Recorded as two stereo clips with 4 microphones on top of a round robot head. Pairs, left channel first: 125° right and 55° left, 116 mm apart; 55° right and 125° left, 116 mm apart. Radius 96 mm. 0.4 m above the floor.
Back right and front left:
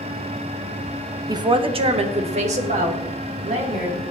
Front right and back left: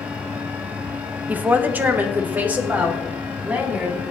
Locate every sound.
1.3 s a woman speaking: 60° left, 0.9 m; by 4.0 s 50° left, 3.5 m